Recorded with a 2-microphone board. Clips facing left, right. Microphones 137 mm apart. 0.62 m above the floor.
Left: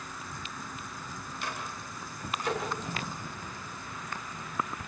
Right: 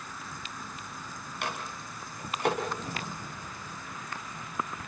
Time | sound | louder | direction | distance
1.4 | a microwave | right 3 dB | 65° right (ahead or behind) | 4.5 m